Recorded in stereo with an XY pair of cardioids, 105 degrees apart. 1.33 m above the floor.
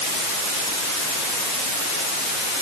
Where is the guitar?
I don't hear a guitar.